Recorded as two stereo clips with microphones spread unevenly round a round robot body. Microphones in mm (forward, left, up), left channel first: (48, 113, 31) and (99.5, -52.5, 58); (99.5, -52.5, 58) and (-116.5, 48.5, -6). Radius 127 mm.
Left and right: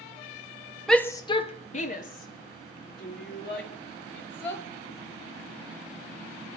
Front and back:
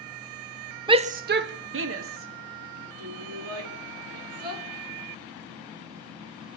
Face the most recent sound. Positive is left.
turn(degrees=140)